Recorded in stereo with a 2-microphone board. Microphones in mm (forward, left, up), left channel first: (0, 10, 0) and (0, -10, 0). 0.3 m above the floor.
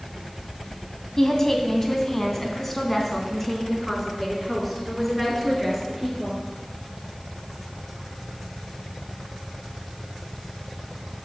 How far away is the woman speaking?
About 1.8 m.